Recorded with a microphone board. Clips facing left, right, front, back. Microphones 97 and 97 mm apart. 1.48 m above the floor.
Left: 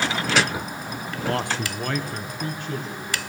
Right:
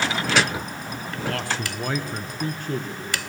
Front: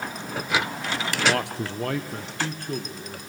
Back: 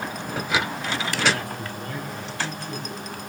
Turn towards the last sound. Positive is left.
turn(degrees=-55)